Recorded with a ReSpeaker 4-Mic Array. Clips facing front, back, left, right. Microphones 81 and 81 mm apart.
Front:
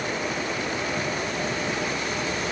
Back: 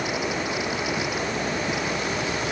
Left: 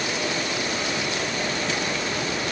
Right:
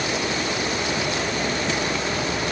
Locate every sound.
Only background noise.